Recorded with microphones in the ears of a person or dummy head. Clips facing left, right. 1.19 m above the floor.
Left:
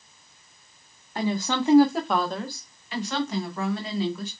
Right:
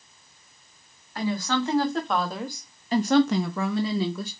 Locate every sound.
1.1 s a woman speaking: 25° left (ahead or behind), 1.4 m; by 4.3 s 85° right, 1.1 m